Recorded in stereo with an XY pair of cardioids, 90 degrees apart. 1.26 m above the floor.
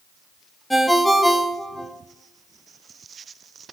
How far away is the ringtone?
About 0.9 m.